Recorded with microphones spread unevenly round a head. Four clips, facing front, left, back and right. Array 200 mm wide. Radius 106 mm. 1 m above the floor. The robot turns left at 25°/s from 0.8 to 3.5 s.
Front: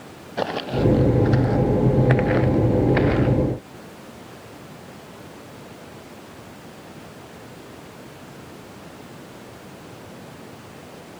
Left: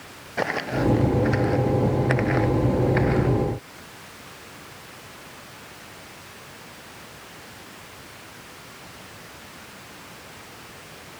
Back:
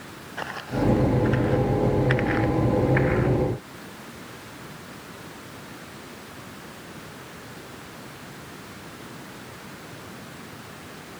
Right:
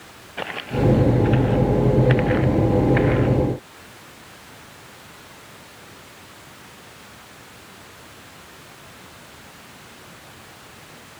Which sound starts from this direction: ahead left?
Footsteps, at 0.4 s.